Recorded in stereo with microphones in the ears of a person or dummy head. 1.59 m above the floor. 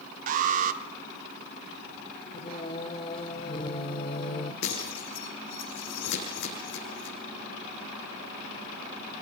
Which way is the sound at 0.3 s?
45° right (ahead or behind).